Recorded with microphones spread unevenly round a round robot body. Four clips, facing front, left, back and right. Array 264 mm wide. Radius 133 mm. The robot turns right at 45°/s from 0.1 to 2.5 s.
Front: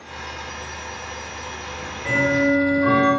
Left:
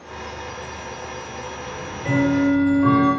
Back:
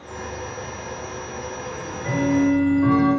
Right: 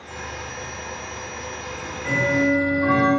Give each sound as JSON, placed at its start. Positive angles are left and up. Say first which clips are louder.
{"t": 1.7, "sound": "ticking", "louder": "left 3 dB, front 2 dB", "azimuth_deg": 95, "distance_m": 1.5}